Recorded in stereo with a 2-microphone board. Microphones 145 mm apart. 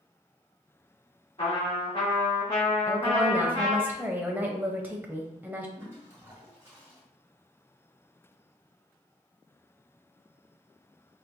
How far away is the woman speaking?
About 0.7 m.